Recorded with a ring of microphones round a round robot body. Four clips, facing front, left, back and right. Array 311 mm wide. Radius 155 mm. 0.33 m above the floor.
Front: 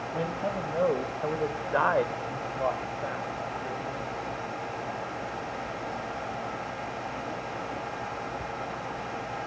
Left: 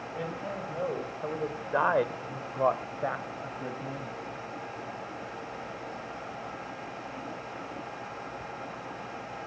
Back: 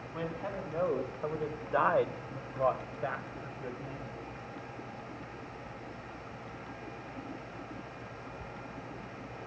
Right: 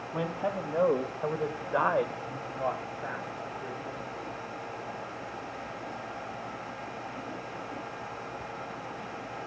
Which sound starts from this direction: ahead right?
A man speaking, at 0.1 s.